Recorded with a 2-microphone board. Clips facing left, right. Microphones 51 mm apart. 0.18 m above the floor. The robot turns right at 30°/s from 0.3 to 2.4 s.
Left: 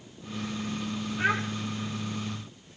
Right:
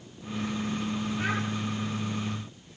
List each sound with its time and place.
1.2 s a child speaking: 30° left (ahead or behind), 4.5 m; by 1.4 s 35° left (ahead or behind), 4.5 m